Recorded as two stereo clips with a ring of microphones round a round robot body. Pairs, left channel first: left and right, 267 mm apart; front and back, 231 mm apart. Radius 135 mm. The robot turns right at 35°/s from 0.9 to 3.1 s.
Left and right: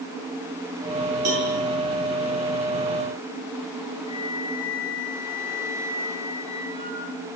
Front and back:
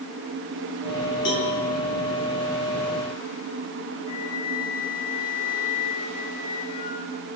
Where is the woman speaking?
No woman speaking in this recording.